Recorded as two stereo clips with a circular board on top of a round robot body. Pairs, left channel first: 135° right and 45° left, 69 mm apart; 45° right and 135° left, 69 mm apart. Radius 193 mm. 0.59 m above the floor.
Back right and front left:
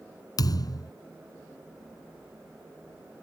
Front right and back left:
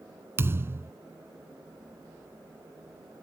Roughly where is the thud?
Behind.